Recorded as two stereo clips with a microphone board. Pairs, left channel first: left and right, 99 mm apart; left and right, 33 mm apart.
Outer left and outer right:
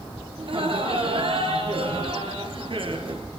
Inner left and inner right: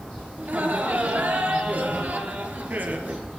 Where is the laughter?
65° right (ahead or behind), 4.5 m.